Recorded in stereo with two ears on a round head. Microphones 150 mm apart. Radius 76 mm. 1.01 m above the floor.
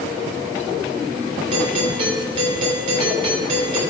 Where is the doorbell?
35° right (ahead or behind), 5.5 m.